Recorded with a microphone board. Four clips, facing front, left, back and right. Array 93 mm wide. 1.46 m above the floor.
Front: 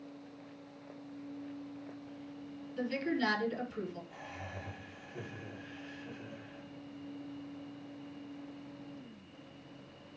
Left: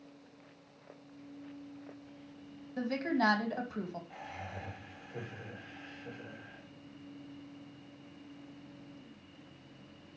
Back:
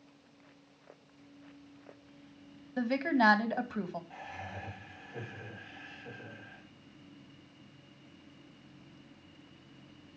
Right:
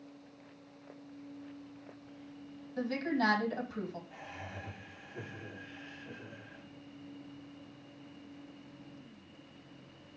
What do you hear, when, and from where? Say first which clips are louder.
2.8 s a woman speaking: left 1 dB, back 6 dB; 170° left, 2.5 m
4.1 s laughter: left 2 dB, back 2 dB; 125° left, 8 m